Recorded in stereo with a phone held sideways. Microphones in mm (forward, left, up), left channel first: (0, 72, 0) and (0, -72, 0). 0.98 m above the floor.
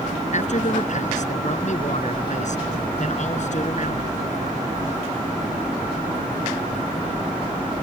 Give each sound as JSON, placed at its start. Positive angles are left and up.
{"t": 0.3, "sound": "a man speaking", "side_deg": 55}